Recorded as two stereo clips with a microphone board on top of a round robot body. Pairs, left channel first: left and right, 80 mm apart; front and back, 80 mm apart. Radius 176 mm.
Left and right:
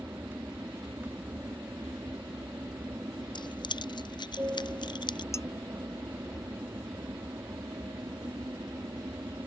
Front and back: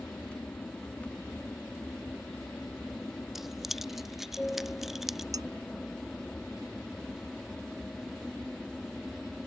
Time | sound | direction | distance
0.0 | an aircraft | 55° right | ?
3.4 | keys jangling | 95° left | ?
5.3 | dishes clattering | 140° left | ?